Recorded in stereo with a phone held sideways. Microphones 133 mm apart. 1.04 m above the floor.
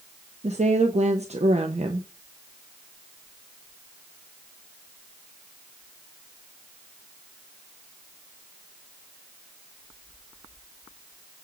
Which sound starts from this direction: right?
A woman speaking, at 0.4 s.